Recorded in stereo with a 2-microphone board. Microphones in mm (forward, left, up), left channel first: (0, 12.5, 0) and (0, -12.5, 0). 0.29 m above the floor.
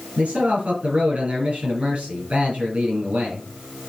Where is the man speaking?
55° right (ahead or behind), 5.5 m.